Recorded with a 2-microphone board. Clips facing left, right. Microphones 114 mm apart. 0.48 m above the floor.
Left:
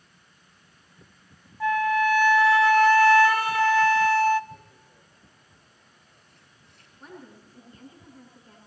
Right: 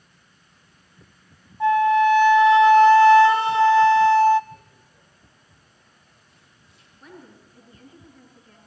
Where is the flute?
25° right (ahead or behind), 0.8 m.